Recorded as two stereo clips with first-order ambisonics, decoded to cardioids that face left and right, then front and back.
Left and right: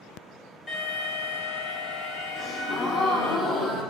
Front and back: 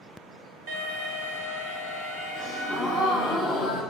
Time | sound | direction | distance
0.7 | an alarm | 175° left | 1.7 m
2.4 | a gasp | 40° left | 1.3 m